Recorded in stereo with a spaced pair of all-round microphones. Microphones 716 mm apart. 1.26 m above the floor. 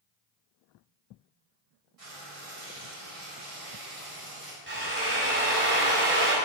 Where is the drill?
45° right (ahead or behind), 2.0 m.